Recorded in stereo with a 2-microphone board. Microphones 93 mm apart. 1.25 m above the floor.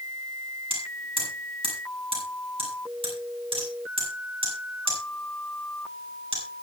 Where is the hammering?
85° right, 8 m.